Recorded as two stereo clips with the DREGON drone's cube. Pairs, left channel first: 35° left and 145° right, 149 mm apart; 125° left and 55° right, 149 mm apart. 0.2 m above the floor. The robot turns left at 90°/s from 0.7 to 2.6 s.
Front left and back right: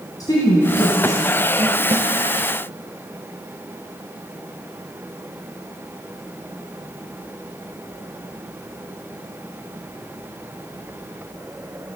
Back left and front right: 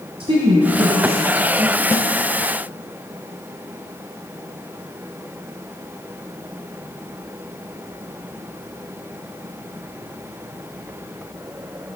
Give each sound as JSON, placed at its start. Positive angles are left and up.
{"t": 0.2, "sound": "a woman speaking", "azimuth_deg": -20, "distance_m": 1.5}
{"t": 1.9, "sound": "a snare drum", "azimuth_deg": 170, "distance_m": 0.7}